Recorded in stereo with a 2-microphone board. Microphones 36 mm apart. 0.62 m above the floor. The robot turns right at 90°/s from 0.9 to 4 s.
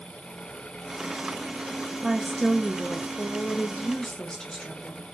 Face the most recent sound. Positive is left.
turn(degrees=150)